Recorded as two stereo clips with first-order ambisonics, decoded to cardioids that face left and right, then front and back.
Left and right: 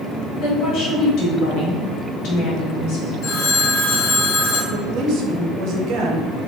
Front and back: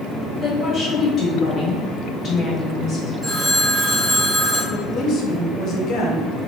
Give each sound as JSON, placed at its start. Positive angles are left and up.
{"t": 0.4, "sound": "a woman speaking", "azimuth_deg": 70, "distance_m": 1.4}
{"t": 3.2, "sound": "a phone ringing", "azimuth_deg": 95, "distance_m": 1.5}
{"t": 4.7, "sound": "a woman speaking", "azimuth_deg": -55, "distance_m": 0.8}